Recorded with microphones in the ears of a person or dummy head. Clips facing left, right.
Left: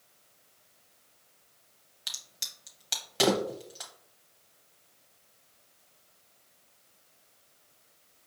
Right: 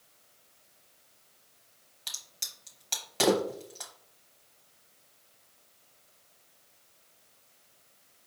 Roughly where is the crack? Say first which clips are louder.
Even; centre.